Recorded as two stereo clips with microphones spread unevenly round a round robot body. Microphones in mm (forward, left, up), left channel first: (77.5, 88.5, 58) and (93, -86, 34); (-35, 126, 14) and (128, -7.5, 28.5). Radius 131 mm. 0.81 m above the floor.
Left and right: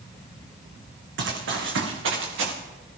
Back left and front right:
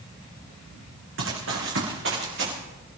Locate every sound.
1.2 s running footsteps: 80° right, 3 m; by 2.5 s 90° right, 4.5 m